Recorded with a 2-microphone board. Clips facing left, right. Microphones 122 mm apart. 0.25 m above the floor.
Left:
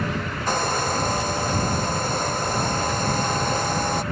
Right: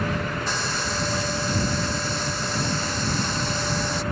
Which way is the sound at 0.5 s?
50° left (ahead or behind).